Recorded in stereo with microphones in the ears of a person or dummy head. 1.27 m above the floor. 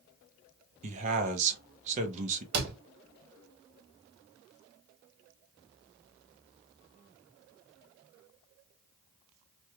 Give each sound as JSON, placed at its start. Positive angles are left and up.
{"t": 0.8, "sound": "a man speaking", "side_deg": -40, "distance_m": 0.9}
{"t": 2.5, "sound": "a door slam", "side_deg": -65, "distance_m": 1.5}